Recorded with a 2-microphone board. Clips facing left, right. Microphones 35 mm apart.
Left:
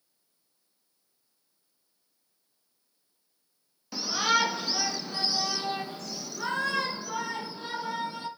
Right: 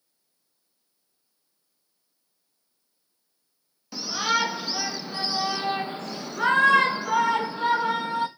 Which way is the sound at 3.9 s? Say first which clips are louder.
Right 1 dB; 5° left (ahead or behind).